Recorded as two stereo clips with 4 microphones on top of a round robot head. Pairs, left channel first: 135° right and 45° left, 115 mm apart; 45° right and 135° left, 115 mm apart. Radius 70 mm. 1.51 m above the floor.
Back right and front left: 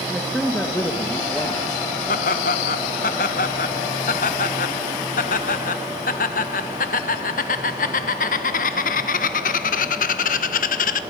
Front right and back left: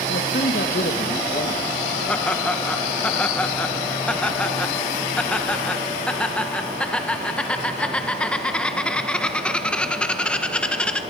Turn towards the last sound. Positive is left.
turn(degrees=-130)